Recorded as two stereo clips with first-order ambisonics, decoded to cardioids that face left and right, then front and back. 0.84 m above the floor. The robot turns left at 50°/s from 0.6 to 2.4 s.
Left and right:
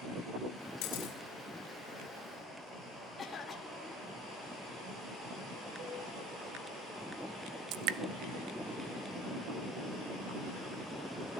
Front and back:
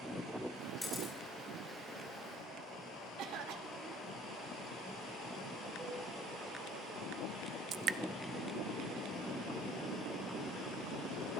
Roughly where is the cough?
Behind.